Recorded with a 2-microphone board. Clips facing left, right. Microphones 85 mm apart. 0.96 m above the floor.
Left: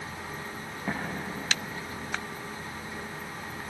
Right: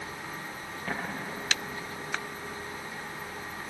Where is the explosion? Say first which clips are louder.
Left 2 dB; 20° left (ahead or behind), 6 m.